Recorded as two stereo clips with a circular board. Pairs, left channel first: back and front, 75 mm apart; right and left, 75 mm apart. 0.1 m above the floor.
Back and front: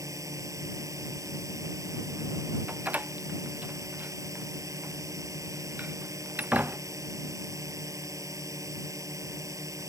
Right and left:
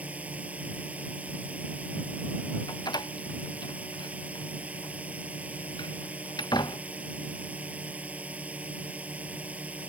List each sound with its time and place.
0.0 s a drone: 25° left
2.7 s a door slam: 70° right